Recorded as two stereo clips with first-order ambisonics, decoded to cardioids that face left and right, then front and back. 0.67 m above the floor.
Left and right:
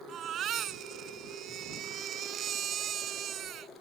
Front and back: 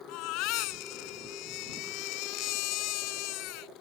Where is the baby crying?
30° right.